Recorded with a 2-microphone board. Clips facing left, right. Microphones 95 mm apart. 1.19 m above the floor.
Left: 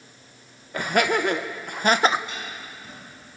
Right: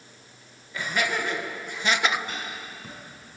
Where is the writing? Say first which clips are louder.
Even; 50° right (ahead or behind), 10 m.